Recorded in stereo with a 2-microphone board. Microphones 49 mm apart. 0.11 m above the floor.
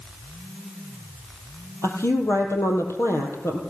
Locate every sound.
1.8 s a woman speaking: 70° left (ahead or behind), 3.5 m